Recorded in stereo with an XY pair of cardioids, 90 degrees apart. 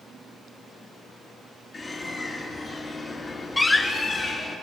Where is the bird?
50° left, 4.5 m.